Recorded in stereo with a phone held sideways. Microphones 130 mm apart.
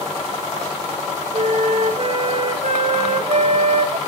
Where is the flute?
65° right (ahead or behind), 1.1 m.